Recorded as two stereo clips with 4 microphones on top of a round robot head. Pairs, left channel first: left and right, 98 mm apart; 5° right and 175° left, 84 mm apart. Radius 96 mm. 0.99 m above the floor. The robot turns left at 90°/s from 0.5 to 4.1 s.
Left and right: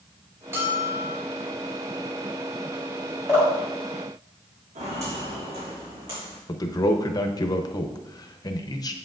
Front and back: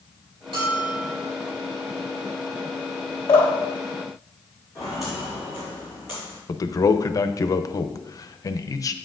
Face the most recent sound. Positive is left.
turn(degrees=40)